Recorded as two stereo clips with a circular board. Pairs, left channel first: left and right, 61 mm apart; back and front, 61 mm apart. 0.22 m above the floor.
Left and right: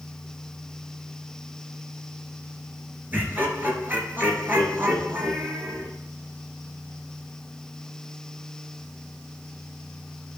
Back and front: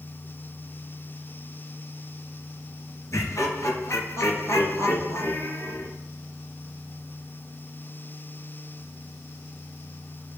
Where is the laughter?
145° right, 3 m.